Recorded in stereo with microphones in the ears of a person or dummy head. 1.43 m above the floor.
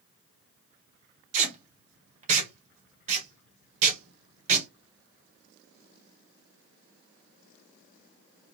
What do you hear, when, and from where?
1.3 s tape being pulled: 50° right (ahead or behind), 1.9 m